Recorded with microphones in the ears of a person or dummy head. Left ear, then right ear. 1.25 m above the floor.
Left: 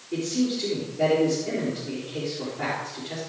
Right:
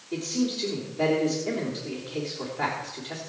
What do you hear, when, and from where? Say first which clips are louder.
0.1 s a man speaking: left 2 dB; 45° right (ahead or behind), 3.5 m